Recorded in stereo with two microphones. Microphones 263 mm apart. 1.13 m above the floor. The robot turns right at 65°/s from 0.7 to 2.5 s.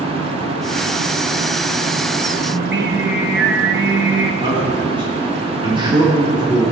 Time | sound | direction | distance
2.5 | singing | 45° right (ahead or behind) | 1.2 m
4.4 | a man speaking | 20° right (ahead or behind) | 3 m